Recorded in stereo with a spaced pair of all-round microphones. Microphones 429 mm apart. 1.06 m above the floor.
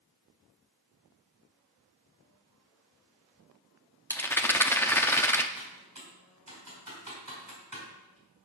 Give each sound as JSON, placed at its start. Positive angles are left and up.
{"t": 4.1, "sound": "a rattle", "side_deg": 5, "distance_m": 0.5}
{"t": 5.6, "sound": "typing on a keyboard", "side_deg": -45, "distance_m": 2.5}